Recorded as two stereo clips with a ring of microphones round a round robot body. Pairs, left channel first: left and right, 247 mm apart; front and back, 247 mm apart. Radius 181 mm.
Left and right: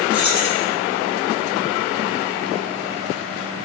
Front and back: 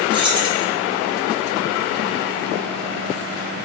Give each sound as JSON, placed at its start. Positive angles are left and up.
{"t": 0.1, "sound": "keys jangling", "azimuth_deg": 105, "distance_m": 2.5}